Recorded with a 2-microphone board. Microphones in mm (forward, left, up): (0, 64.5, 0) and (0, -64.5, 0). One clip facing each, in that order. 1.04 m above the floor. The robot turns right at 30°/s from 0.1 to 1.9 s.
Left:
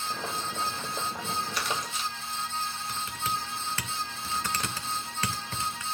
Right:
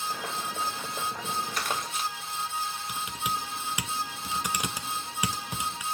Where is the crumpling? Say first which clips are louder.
Right 1 dB; 45° right (ahead or behind), 2 m; by 2.1 s 55° right (ahead or behind), 2 m.